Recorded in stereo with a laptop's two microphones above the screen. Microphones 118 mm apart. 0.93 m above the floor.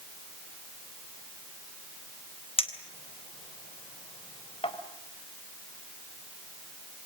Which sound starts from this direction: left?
A clink, at 2.6 s.